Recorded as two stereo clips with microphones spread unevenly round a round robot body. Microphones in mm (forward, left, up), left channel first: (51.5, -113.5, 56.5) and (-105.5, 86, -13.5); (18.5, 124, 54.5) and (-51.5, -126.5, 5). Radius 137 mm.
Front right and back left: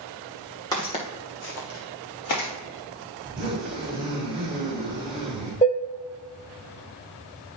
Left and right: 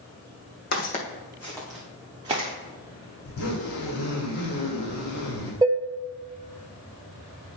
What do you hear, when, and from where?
0.7 s footsteps: 20° left, 1.7 m; by 2.5 s 35° right, 2.5 m
3.2 s a zipper: 40° left, 3 m
5.6 s dishes clattering: 125° right, 0.7 m